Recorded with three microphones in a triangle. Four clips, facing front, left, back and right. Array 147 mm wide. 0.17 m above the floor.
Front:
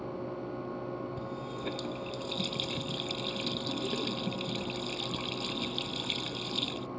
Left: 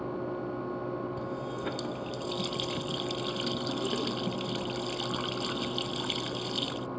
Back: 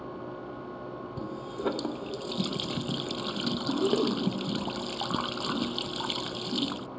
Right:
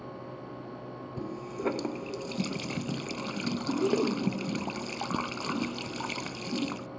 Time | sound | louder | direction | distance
1.2 | a running tap | even, back 4 dB | 145° right | ?